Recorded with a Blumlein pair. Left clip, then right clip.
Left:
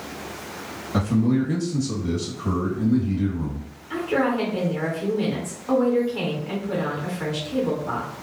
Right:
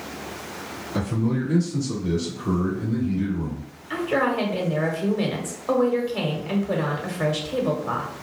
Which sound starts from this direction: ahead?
A woman speaking, at 3.9 s.